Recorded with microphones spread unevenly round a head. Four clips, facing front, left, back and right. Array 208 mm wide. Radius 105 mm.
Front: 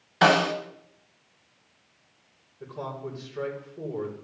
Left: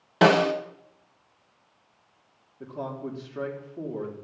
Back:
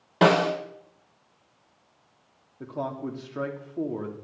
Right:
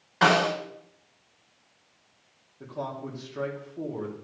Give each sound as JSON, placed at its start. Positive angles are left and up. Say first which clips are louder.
{"t": 0.2, "sound": "a snare drum", "louder": "left 3 dB, back 1 dB", "azimuth_deg": 135, "distance_m": 2.0}
{"t": 2.6, "sound": "a man speaking", "louder": "even, back 4 dB", "azimuth_deg": 170, "distance_m": 3.0}